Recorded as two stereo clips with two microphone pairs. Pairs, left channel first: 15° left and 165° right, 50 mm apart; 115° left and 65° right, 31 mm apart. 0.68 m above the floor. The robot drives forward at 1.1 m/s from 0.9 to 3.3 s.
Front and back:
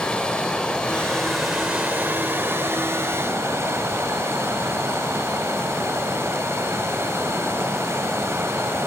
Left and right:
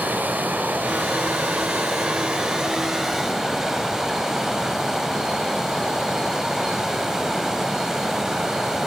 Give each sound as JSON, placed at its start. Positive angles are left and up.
{"t": 0.0, "sound": "running water", "azimuth_deg": -60, "distance_m": 1.7}